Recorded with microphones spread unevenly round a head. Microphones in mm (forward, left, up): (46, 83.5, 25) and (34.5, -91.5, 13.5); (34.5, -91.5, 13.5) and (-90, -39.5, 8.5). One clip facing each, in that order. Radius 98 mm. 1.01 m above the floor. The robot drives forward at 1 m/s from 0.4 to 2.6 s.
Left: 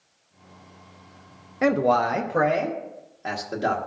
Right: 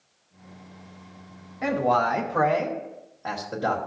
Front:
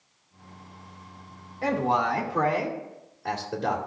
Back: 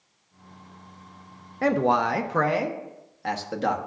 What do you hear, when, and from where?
1.6 s a man speaking: 115° left, 0.6 m; by 3.9 s 160° left, 1.3 m